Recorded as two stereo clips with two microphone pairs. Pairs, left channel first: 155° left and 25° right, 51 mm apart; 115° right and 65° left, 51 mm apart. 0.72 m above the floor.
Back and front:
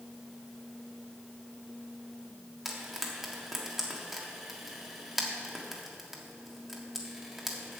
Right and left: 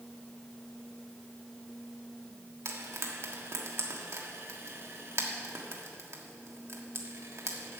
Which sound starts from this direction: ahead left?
Frying, at 2.6 s.